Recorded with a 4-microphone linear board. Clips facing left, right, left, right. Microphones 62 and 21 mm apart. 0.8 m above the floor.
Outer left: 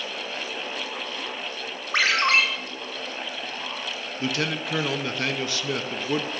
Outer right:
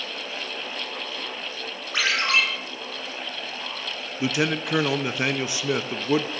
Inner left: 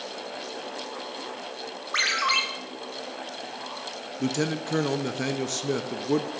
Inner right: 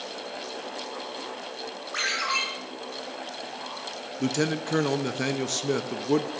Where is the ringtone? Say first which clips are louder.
Outer left 2 dB, inner left 3 dB; 50° left (ahead or behind), 3.5 m.